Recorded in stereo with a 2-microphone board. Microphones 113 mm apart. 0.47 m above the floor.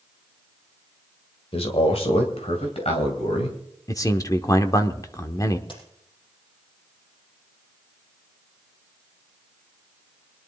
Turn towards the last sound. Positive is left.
turn(degrees=50)  # may be behind; listen again after turning